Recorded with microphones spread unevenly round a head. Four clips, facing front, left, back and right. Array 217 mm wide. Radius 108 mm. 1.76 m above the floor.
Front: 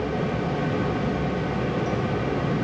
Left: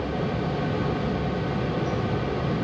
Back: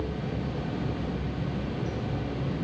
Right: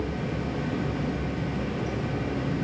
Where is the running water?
85° right, 1.0 m.